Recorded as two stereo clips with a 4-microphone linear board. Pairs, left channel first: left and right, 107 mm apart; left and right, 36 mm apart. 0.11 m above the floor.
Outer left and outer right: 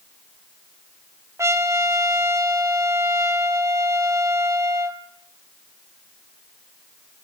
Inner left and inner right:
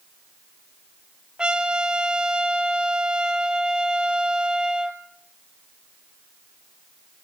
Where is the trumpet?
25° right (ahead or behind), 1.3 m.